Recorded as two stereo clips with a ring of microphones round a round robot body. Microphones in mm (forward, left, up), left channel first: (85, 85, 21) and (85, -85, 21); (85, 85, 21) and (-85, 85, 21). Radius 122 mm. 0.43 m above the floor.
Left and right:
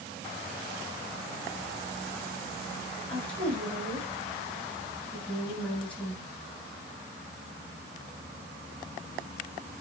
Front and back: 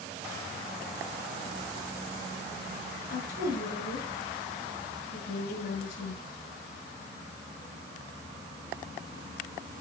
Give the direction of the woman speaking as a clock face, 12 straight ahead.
12 o'clock.